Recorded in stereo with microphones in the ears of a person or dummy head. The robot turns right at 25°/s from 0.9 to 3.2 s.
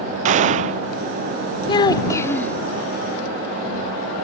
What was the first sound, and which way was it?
A gunshot, 35° right (ahead or behind).